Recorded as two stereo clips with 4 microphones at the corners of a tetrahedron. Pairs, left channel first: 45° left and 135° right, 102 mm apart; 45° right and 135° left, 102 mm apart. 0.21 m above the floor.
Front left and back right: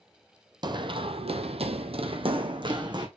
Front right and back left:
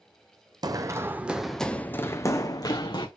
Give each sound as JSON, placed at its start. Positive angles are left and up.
{"t": 0.6, "sound": "running footsteps", "azimuth_deg": -175, "distance_m": 0.7}